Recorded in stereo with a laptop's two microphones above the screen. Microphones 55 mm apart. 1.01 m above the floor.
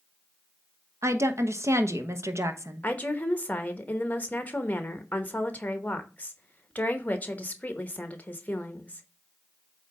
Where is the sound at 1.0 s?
60° right (ahead or behind), 1.0 m.